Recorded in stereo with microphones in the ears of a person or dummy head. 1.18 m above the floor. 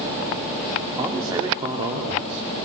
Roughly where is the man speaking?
Centre.